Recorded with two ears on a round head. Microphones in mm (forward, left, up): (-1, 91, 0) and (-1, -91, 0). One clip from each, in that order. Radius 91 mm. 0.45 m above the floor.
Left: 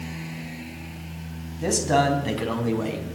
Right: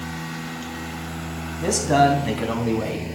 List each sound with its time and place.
1.6 s a man speaking: centre (ahead or behind), 2.5 m; by 3.0 s 5° left (ahead or behind), 3.5 m